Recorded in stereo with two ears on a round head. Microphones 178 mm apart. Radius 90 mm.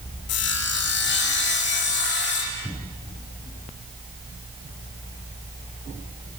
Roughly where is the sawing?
Left.